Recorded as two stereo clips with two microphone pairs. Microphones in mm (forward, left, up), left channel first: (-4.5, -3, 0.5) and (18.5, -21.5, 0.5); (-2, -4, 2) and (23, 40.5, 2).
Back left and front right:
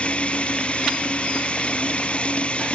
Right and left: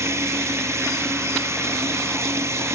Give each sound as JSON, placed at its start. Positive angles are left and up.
{"t": 0.0, "sound": "running water", "azimuth_deg": 90}